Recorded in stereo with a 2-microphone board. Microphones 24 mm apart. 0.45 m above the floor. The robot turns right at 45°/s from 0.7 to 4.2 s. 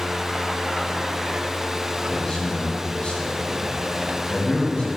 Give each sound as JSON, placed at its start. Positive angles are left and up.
{"t": 2.1, "sound": "a man speaking", "side_deg": 15, "distance_m": 2.5}